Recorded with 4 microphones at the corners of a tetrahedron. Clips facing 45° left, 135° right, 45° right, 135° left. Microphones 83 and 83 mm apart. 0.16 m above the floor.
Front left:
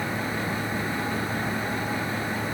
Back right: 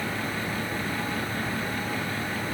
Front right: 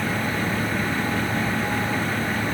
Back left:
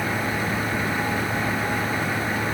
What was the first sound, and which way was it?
Only background noise.